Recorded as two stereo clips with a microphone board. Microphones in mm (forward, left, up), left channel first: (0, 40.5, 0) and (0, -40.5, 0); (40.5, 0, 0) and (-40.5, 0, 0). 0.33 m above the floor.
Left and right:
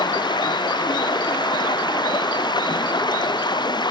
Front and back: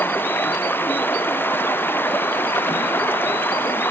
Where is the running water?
65° left.